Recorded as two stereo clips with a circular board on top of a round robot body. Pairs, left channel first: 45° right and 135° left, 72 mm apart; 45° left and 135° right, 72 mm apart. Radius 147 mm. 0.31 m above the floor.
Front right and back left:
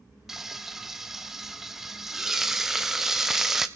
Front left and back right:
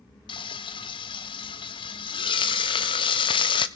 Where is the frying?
50° left, 0.5 m.